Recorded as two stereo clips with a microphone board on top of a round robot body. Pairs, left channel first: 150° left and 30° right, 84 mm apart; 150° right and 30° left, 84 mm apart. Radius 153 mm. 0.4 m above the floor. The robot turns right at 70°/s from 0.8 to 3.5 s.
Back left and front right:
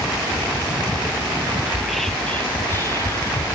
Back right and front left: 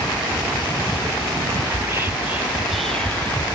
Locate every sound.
1.7 s whispering: 45° left, 0.8 m; by 3.4 s 165° left, 0.8 m